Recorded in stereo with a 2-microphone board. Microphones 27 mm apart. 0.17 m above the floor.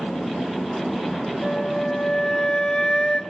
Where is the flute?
25° left (ahead or behind), 0.7 m.